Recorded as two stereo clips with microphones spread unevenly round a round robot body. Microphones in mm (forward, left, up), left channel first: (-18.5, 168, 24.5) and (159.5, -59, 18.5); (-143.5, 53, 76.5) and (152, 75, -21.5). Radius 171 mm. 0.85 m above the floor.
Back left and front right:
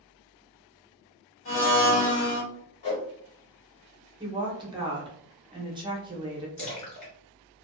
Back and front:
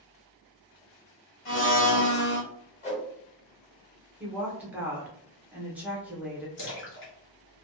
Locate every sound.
1.4 s a blender: 175° left, 1.6 m
2.8 s a whoosh: 125° left, 1.2 m
4.2 s a woman speaking: 5° right, 0.8 m
6.6 s a splash: 155° left, 1.4 m